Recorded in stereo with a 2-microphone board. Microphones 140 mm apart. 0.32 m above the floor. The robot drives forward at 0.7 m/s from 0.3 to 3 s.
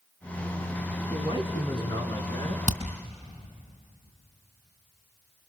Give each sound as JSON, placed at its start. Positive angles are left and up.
{"t": 1.1, "sound": "a man speaking", "side_deg": 40, "distance_m": 2.5}
{"t": 2.7, "sound": "hammering", "side_deg": 55, "distance_m": 3.0}